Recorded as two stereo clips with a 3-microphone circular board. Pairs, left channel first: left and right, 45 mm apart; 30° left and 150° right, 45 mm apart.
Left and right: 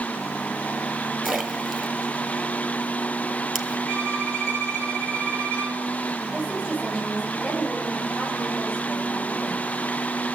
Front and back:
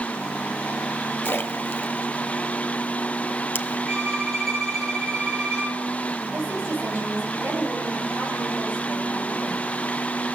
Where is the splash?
5° right, 1.6 m.